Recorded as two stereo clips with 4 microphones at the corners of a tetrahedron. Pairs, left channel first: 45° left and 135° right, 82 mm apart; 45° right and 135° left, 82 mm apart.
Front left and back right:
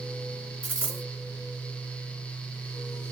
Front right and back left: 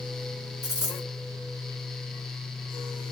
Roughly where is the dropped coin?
Right.